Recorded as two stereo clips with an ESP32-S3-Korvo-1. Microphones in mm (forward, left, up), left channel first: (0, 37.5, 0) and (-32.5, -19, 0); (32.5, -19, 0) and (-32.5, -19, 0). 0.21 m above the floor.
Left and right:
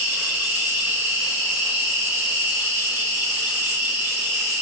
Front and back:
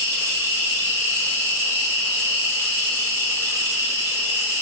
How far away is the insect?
About 1.4 m.